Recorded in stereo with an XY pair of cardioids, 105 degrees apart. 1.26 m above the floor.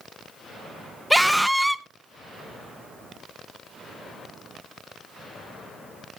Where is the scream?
5° right, 0.9 m.